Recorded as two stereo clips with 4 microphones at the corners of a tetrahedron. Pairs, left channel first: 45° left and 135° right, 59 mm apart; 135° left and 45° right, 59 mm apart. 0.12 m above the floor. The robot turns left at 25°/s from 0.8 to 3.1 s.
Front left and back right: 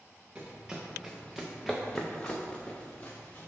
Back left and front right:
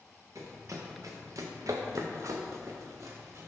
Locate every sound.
0.3 s running footsteps: 65° right, 1.2 m; by 3.5 s 15° right, 1.2 m